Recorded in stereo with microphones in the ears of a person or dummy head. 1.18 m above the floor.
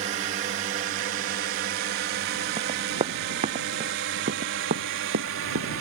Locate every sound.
0.0 s a drone: 40° right (ahead or behind); by 5.8 s 70° right (ahead or behind)
2.6 s running footsteps: 25° right (ahead or behind); by 5.8 s 60° right (ahead or behind)